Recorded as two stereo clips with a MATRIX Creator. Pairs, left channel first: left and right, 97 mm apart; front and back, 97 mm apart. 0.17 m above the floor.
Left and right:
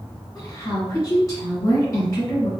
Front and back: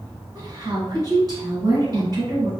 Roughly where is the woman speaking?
Behind left.